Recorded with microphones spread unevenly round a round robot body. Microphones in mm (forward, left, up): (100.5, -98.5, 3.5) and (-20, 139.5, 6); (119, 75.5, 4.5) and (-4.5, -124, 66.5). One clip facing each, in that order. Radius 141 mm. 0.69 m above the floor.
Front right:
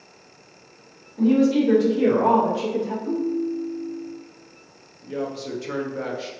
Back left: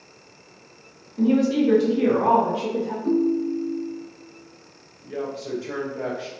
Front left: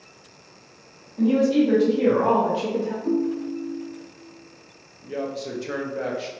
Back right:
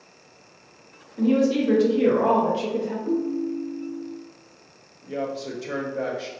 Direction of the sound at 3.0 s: 90° left.